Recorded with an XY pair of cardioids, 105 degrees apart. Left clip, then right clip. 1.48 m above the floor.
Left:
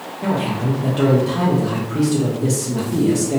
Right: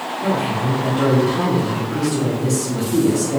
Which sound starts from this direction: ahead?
A man speaking, at 0.2 s.